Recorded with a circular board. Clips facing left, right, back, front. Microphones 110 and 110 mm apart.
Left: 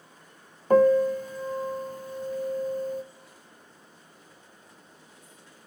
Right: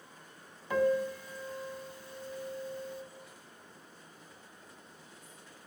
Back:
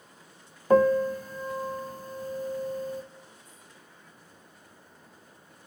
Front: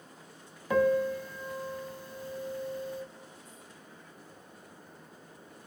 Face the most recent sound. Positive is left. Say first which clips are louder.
# left 10 dB, back 5 dB
turn(degrees=135)